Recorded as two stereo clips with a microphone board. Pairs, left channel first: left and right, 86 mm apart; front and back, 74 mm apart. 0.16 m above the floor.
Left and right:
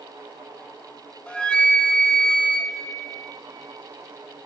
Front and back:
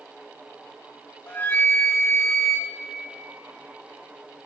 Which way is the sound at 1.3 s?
25° left.